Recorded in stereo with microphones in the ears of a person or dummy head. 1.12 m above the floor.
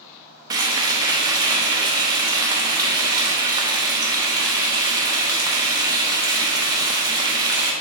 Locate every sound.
0.5 s frying: 20° right (ahead or behind), 0.9 m